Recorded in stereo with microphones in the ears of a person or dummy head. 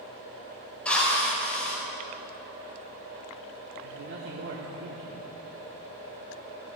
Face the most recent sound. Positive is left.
turn(degrees=-65)  # may be behind; listen again after turning